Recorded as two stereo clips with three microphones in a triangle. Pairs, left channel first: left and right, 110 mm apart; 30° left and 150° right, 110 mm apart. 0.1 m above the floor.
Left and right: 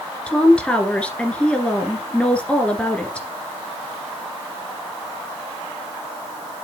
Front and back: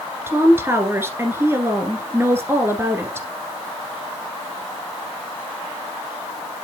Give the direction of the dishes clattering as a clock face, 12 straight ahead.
I don't hear dishes clattering.